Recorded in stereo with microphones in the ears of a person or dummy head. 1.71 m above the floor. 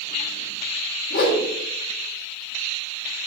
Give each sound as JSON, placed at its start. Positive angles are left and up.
{"t": 1.1, "sound": "a whoosh", "side_deg": 55, "distance_m": 2.5}